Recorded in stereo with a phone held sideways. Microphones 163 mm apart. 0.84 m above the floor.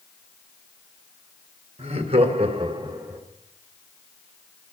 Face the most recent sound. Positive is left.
turn(degrees=-10)  # may be behind; listen again after turning